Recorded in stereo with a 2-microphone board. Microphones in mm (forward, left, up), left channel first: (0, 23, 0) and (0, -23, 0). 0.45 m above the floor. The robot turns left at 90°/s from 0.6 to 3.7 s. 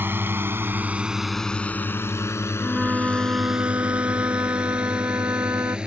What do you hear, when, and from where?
0.0 s a drone: 50° right (ahead or behind); by 5.9 s 20° right (ahead or behind)
2.6 s a flute: 5° left; by 5.8 s 95° right